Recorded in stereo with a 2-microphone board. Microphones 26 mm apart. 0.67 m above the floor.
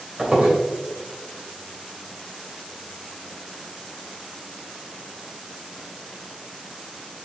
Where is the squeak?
30° right (ahead or behind), 2.5 m.